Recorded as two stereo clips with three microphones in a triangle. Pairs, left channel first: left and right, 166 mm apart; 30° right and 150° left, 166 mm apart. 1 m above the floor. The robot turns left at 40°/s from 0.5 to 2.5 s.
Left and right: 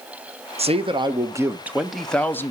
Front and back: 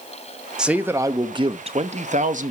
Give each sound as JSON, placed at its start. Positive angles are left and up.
{"t": 0.6, "sound": "a man speaking", "azimuth_deg": -125, "distance_m": 0.7}